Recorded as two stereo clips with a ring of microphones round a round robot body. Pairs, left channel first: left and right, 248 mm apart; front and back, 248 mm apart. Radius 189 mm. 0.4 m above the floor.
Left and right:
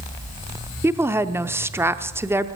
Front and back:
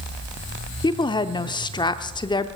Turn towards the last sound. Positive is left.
turn(degrees=-30)